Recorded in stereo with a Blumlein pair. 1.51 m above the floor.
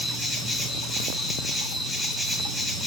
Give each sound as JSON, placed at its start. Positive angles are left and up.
{"t": 0.0, "sound": "an insect", "azimuth_deg": 5, "distance_m": 1.3}